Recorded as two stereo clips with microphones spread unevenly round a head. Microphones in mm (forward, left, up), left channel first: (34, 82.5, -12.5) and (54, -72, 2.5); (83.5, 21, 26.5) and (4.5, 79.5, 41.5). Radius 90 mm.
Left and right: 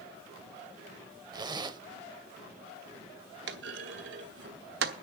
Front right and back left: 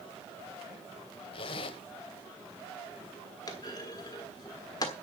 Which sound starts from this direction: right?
A clunk, at 3.5 s.